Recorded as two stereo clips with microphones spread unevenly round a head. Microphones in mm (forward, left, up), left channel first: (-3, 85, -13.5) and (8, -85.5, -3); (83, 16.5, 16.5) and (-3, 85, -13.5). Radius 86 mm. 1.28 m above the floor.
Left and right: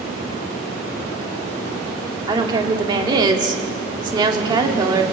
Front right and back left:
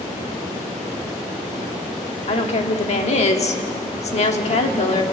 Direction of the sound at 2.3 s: 20° right.